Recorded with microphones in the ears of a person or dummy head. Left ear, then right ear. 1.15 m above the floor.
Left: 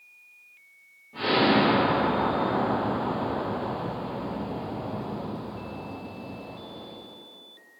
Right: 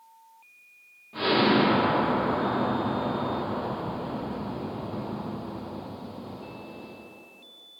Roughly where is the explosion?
Right.